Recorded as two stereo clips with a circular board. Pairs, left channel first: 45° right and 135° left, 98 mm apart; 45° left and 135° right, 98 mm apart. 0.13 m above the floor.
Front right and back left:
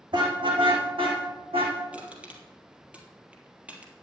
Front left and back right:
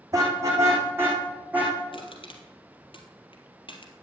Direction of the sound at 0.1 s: 170° left.